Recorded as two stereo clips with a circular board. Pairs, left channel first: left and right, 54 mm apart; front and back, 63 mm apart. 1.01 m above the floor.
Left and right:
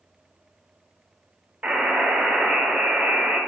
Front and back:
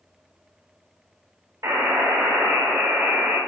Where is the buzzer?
155° right, 3 m.